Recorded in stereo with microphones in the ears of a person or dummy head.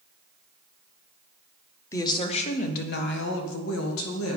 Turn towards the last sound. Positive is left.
turn(degrees=85)